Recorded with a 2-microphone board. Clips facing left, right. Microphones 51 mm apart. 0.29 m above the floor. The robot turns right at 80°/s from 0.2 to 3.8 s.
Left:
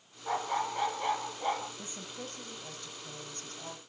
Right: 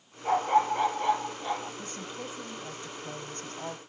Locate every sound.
0.2 s a dog barking: 65° right, 3.5 m; by 1.7 s 50° left, 3.5 m
1.8 s a woman speaking: 150° left, 1.2 m; by 3.8 s 50° right, 1.2 m